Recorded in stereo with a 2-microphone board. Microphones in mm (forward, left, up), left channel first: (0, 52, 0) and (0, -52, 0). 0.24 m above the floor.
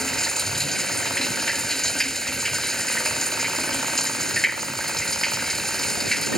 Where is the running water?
5° left (ahead or behind).